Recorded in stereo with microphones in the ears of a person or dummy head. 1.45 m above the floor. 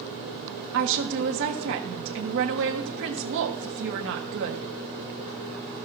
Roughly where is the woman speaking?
Right.